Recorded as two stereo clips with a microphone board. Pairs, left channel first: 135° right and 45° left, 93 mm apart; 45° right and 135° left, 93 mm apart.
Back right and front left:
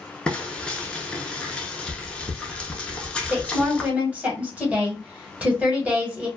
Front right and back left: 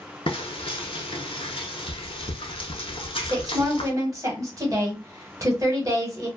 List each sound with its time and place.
0.3 s frying: 55° right, 0.7 m
3.2 s a woman speaking: 115° left, 1.1 m